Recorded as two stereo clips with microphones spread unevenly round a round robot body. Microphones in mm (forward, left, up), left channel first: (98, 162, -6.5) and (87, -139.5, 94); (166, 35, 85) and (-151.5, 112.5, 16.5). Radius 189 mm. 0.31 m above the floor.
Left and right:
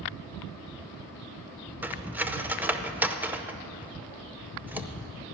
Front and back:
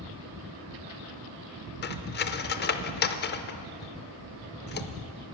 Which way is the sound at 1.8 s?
30° left.